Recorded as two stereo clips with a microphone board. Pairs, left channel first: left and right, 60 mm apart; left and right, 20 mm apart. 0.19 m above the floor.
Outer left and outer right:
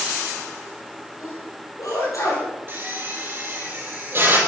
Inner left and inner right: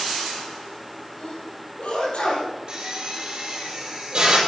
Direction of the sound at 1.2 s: 65° left (ahead or behind).